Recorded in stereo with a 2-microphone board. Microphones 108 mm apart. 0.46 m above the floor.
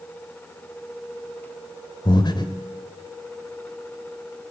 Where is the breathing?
45° left (ahead or behind), 1.8 m.